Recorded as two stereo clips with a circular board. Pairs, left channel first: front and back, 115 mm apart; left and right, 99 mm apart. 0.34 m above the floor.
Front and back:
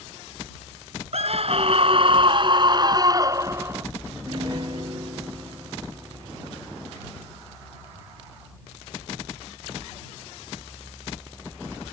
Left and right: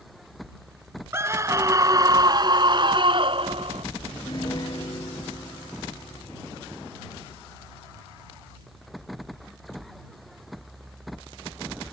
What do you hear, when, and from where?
1.1 s a scream: 155° right; by 3.9 s 110° right
4.1 s a piano: 135° left